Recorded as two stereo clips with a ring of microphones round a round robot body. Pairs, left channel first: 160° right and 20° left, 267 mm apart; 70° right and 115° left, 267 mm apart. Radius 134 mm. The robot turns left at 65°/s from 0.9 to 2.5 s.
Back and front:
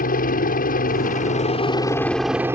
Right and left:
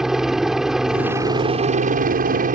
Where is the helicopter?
160° right; by 2.6 s 95° left.